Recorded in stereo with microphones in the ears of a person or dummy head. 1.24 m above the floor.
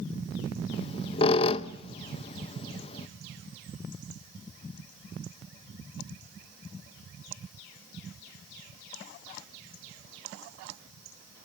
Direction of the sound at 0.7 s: 35° left (ahead or behind).